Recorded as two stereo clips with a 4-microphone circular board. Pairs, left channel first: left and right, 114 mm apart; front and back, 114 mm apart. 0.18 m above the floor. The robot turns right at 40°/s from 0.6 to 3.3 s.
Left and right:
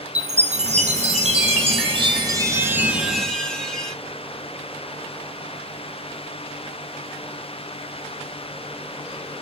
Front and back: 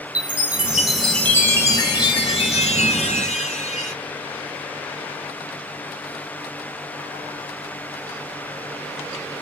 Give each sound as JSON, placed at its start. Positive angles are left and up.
{"t": 0.1, "sound": "a chime", "azimuth_deg": -105, "distance_m": 1.2}